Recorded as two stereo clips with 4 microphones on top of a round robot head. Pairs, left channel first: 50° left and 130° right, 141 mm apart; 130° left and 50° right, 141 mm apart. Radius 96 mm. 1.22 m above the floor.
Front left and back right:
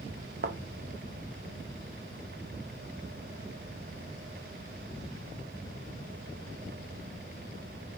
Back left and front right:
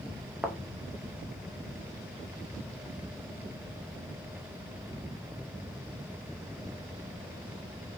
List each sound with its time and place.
0.4 s a thud: 135° right, 0.6 m